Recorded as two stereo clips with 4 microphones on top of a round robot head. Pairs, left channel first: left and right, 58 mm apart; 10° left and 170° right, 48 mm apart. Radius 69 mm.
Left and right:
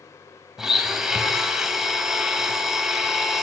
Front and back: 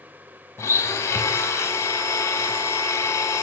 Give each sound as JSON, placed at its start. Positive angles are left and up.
{"t": 0.6, "sound": "a blender", "azimuth_deg": -10, "distance_m": 3.0}